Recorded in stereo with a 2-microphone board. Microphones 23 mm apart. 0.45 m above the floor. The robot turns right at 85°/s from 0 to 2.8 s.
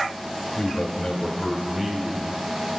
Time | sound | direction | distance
0.6 | a man speaking | 95° left | 1.0 m